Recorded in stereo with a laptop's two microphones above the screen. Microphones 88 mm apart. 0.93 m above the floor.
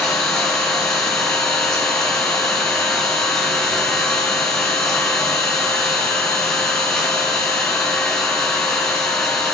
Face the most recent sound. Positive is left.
turn(degrees=10)  # may be behind; listen again after turning